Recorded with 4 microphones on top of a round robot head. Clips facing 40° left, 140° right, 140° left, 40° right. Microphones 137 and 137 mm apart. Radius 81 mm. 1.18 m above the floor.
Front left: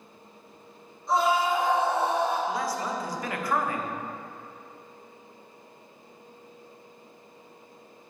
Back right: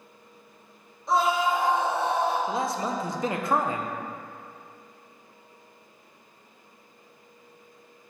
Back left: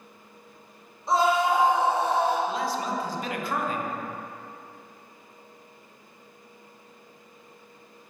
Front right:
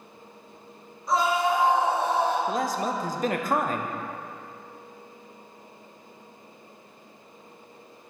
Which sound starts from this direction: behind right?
A scream, at 1.1 s.